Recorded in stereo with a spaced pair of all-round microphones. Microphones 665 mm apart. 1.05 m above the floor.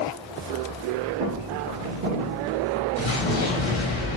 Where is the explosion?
45° left (ahead or behind), 0.9 m.